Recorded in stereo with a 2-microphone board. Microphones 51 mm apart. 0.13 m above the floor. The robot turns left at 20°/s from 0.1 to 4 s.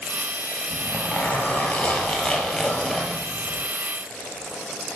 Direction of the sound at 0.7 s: 55° left.